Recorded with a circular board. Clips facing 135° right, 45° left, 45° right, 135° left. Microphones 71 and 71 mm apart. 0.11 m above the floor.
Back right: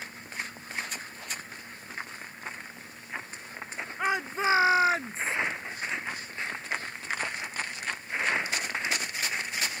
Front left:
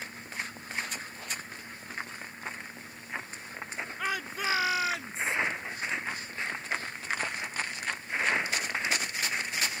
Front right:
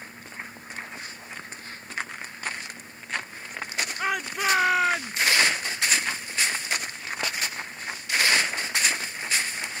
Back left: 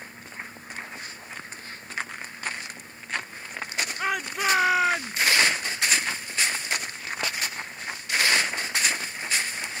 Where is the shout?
130° right; by 5.4 s 140° right.